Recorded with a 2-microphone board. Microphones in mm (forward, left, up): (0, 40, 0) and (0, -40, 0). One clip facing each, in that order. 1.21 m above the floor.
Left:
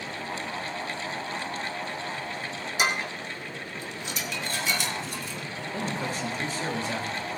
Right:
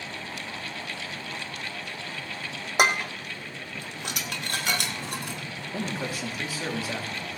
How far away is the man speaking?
About 2.5 m.